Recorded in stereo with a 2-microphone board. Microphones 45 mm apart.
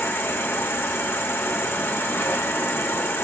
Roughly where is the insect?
Left.